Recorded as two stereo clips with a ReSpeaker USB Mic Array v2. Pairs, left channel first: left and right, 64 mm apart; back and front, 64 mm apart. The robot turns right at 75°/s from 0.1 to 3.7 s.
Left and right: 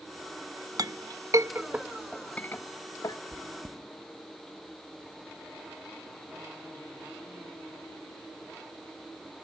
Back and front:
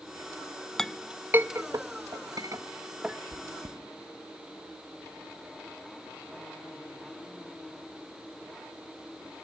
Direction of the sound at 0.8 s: 100° right.